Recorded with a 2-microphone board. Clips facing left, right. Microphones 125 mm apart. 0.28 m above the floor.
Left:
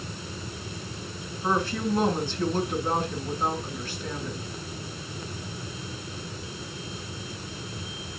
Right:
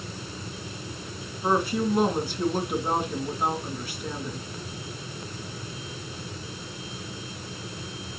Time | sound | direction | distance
1.4 | a woman speaking | 10° right (ahead or behind) | 2.5 m